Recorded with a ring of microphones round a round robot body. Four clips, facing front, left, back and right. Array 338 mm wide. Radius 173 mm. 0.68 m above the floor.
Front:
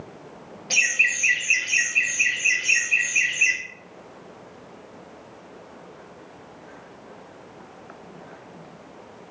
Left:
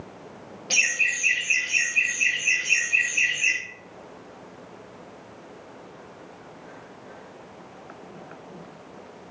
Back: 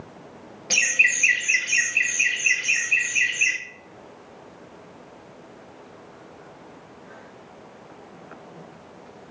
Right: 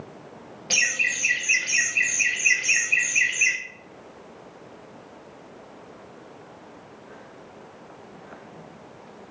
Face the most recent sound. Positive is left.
turn(degrees=-105)